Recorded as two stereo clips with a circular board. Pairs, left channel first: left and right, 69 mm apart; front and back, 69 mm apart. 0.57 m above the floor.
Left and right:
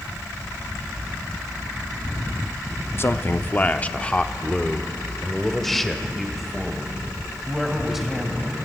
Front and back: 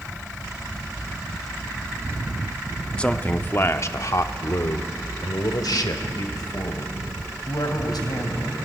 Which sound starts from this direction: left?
A man speaking, at 3.0 s.